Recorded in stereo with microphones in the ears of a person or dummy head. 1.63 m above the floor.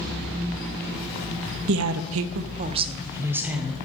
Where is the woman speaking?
70° right (ahead or behind), 0.6 m; by 3.8 s 5° right (ahead or behind), 1.2 m.